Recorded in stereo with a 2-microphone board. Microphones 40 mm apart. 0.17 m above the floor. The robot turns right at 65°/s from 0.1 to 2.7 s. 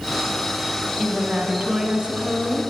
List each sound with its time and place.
1.0 s a woman speaking: 165° left, 1.3 m; by 2.6 s 90° right, 1.3 m